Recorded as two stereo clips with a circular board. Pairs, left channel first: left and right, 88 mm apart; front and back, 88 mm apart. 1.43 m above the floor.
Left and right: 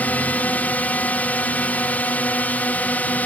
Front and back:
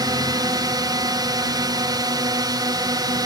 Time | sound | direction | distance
0.0 | a drone | 160° left | ?